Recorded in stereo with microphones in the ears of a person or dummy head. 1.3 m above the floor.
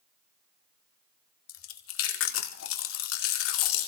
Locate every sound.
1.5 s chewing: 75° left (ahead or behind), 1.8 m